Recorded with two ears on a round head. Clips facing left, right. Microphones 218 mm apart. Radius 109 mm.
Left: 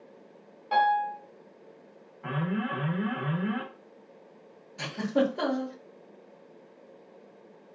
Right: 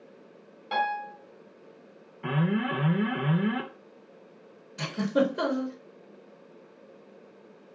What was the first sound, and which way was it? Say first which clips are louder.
A piano: left 5 dB; 30° right (ahead or behind).